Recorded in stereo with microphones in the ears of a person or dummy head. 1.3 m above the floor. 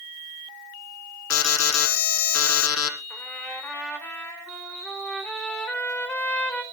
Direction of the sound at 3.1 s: 10° left (ahead or behind).